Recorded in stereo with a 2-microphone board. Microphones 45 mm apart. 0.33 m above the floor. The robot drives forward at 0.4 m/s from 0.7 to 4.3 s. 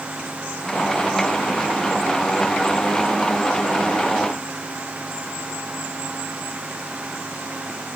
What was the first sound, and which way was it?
Only background noise.